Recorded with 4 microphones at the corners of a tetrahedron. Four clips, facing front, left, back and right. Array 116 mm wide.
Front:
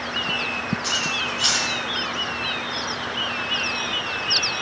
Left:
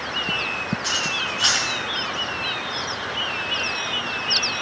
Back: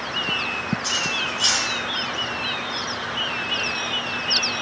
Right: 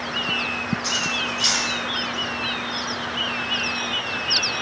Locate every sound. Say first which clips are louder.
0.8 s cutlery clinking: even, even; 80° left, 4.5 m